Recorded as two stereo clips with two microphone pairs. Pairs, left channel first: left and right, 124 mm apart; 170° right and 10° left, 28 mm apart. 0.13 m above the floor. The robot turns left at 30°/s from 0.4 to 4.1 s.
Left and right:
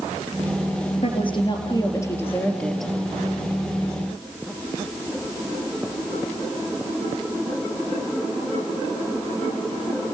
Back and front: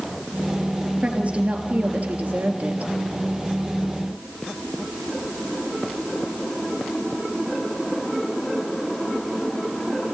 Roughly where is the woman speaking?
Ahead left.